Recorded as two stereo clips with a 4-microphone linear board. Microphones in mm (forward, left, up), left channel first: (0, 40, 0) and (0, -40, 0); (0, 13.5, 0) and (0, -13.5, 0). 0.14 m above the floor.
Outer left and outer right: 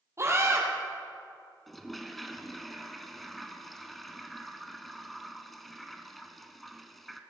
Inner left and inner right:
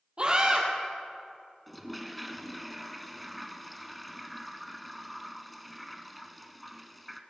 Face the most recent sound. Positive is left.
turn(degrees=0)  # may be behind; listen again after turning